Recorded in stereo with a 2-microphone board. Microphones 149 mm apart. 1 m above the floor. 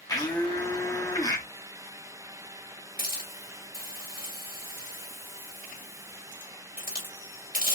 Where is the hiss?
75° right (ahead or behind), 2.5 m.